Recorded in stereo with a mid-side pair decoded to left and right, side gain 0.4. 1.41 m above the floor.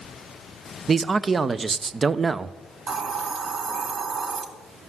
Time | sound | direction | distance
0.9 | a man speaking | 35° right | 0.7 m
2.9 | a hiss | 60° right | 2.5 m